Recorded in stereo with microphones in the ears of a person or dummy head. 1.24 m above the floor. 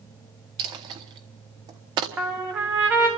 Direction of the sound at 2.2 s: 5° right (ahead or behind).